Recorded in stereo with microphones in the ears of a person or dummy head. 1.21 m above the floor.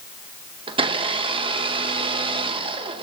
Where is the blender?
30° right (ahead or behind), 0.9 m.